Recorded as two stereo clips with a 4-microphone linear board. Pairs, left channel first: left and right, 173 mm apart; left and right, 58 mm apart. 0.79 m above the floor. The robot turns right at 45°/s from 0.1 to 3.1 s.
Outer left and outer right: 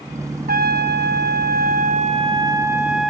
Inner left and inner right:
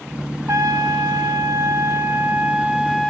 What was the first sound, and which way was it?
A trumpet, 115° right.